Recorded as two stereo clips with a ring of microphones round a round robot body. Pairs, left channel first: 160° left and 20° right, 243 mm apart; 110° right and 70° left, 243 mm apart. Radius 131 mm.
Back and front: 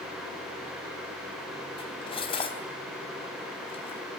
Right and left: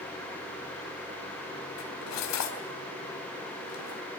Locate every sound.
1.8 s cutlery clinking: 135° right, 3.5 m